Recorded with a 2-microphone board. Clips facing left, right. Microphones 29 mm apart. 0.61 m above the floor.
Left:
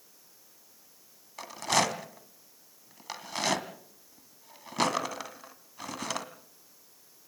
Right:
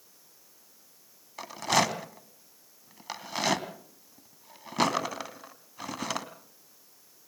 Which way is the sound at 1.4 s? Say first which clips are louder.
Right 1 dB; 5° right (ahead or behind).